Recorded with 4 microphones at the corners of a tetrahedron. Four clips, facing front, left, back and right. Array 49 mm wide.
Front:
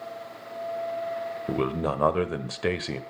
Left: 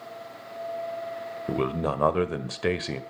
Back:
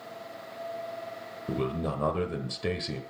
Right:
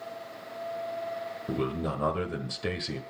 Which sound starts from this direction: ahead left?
A man speaking, at 1.5 s.